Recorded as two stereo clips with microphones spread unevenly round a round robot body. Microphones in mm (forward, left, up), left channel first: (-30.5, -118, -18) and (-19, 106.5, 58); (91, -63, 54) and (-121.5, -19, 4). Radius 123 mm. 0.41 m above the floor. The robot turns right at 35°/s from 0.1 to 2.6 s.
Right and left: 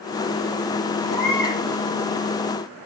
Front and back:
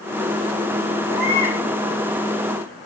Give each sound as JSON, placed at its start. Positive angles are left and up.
{"t": 1.1, "sound": "a baby crying", "azimuth_deg": 75, "distance_m": 6.0}